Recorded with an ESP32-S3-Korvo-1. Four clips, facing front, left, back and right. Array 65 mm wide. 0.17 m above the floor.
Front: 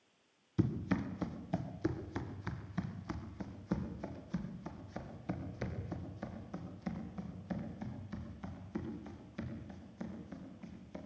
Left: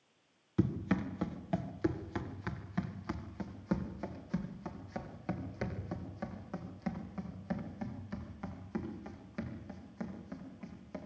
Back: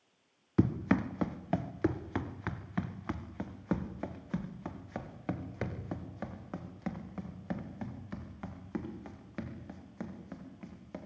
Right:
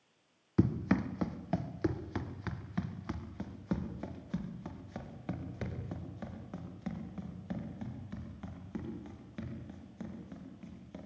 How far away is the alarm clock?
No alarm clock in this recording.